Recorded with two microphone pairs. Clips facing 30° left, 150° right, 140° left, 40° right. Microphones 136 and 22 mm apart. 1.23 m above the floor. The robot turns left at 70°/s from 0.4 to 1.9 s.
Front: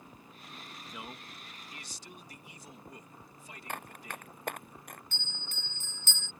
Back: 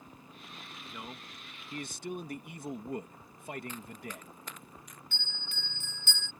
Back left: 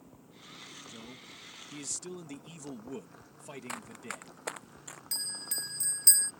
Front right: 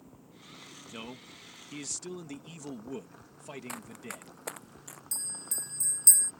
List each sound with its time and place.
0.9 s a man speaking: 50° right; by 4.3 s 120° right
3.7 s running footsteps: 55° left; by 5.0 s 60° left
5.1 s a bell: 75° left